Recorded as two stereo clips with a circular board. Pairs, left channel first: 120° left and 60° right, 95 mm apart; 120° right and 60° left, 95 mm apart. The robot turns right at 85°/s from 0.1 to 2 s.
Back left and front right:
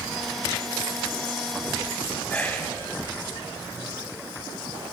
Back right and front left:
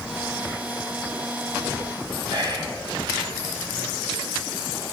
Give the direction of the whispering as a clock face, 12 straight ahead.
10 o'clock.